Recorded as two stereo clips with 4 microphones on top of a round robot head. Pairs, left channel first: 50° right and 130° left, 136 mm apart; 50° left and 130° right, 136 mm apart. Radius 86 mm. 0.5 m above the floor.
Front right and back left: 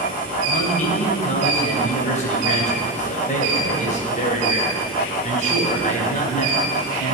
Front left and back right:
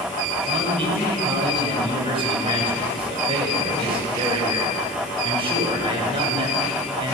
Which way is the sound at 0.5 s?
80° right.